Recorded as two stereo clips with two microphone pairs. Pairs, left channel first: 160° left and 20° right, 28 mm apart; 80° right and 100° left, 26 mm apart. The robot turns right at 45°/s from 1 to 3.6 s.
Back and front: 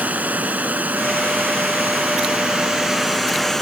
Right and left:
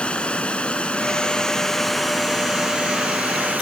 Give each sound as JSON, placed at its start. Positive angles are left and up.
{"t": 0.0, "sound": "running water", "azimuth_deg": -35}